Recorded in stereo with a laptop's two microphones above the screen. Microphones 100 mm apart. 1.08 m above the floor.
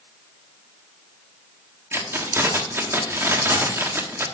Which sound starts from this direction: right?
Keys jangling, at 1.9 s.